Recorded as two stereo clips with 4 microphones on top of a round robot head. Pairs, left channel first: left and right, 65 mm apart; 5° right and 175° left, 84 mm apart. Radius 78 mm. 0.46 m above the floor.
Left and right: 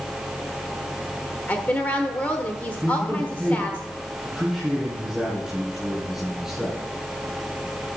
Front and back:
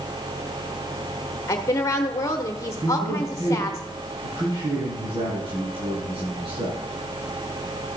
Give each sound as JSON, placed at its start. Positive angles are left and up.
{"t": 1.5, "sound": "a woman speaking", "azimuth_deg": 35, "distance_m": 1.1}
{"t": 2.8, "sound": "a man speaking", "azimuth_deg": -175, "distance_m": 7.0}